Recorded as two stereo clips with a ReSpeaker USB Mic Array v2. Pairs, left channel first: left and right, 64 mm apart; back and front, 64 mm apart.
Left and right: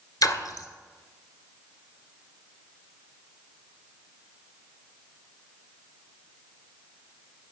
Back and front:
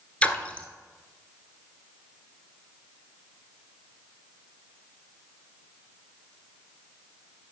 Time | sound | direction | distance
0.2 | a splash | 110° left | 0.9 m